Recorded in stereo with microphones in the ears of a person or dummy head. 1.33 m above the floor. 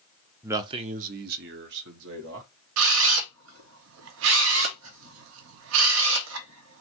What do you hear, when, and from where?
0.4 s a man speaking: 10° right (ahead or behind), 0.6 m; by 2.5 s 70° right (ahead or behind), 1.6 m
2.8 s a camera shutter: 70° right (ahead or behind), 0.7 m